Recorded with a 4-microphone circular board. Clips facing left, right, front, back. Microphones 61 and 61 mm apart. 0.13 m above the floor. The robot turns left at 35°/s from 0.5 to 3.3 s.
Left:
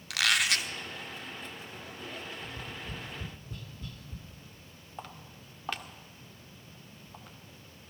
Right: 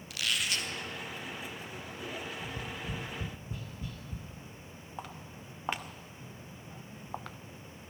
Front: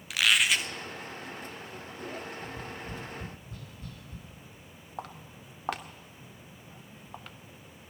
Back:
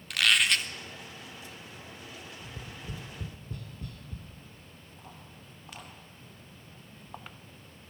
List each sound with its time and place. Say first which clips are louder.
0.1 s a squeak: left 6 dB, even; 85° left, 1.1 m; by 0.7 s 75° left, 1.1 m
2.4 s tapping: right 2 dB, front 5 dB; 130° right, 2 m; by 4.2 s 165° right, 2 m
5.0 s footsteps: right 1 dB, front 10 dB; 5° right, 2 m; by 7.4 s 105° right, 1.0 m